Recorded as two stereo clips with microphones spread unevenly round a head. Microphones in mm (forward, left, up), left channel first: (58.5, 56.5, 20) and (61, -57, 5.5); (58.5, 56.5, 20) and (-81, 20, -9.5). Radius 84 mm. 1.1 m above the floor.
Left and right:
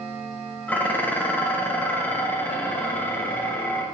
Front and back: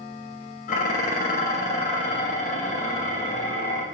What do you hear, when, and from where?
0.7 s dishes clattering: 20° left, 0.5 m